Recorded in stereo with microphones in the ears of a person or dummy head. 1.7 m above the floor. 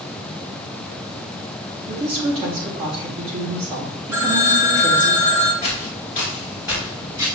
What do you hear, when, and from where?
1.9 s a woman speaking: 25° right (ahead or behind), 0.9 m
4.1 s a phone ringing: 15° right (ahead or behind), 0.9 m
5.6 s footsteps: 30° left (ahead or behind), 2.0 m; by 7.3 s 25° right (ahead or behind), 1.8 m